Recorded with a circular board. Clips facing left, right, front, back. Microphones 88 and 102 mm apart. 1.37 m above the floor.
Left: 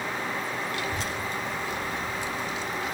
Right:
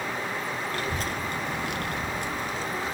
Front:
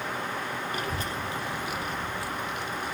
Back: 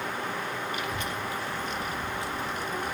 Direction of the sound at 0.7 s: 45° right.